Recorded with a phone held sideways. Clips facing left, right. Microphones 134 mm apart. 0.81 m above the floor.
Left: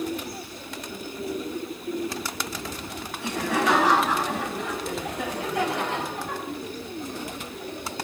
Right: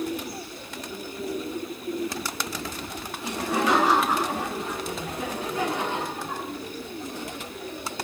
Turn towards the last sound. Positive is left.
turn(degrees=75)  # may be behind; listen again after turning